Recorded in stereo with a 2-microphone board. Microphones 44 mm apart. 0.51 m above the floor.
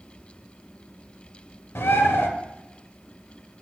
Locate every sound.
1.8 s a bird: 75° left (ahead or behind), 1.1 m